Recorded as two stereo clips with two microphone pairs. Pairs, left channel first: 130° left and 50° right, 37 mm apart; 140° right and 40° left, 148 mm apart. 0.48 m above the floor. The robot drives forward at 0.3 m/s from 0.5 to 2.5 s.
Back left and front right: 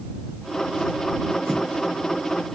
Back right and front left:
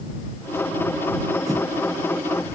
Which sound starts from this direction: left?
A whoosh, at 1.4 s.